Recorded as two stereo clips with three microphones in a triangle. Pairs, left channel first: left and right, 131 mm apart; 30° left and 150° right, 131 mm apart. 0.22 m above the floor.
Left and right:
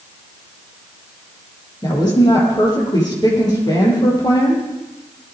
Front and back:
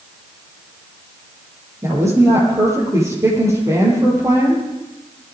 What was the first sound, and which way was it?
A woman speaking, 145° left.